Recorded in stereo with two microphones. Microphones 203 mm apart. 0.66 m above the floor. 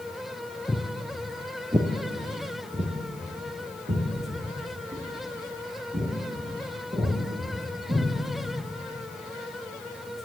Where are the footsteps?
5° left (ahead or behind), 0.7 m; by 8.0 s 35° right (ahead or behind), 4 m.